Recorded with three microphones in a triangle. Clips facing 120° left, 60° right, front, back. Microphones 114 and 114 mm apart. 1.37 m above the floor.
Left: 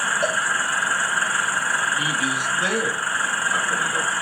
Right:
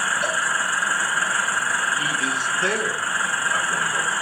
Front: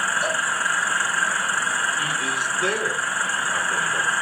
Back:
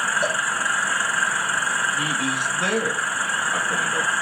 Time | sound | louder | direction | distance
0.2 | a cowbell | left 2 dB, back 1 dB | 155° left | 1.4 m
2.0 | a man speaking | left 1 dB, back 1 dB | 160° right | 1.6 m